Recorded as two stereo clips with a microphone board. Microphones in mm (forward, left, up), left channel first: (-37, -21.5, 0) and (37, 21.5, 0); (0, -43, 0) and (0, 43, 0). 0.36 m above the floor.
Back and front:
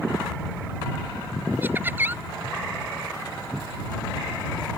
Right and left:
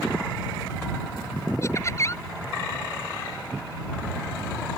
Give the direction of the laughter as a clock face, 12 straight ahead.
1 o'clock.